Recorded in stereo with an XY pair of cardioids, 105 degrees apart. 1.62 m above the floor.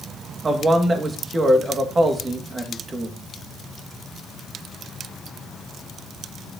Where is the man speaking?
30° right, 2 m.